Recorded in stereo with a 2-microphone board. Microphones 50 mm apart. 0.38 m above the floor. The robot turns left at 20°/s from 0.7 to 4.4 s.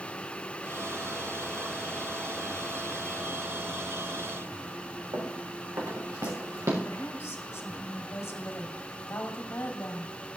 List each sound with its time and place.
5.1 s running footsteps: 85° right, 3.5 m; by 6.7 s 75° right (ahead or behind), 3 m
6.8 s a woman speaking: 65° left (ahead or behind), 2.5 m